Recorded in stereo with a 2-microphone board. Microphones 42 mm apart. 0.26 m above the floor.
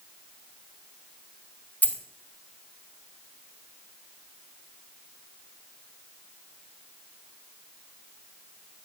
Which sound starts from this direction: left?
A dropped coin, at 1.8 s.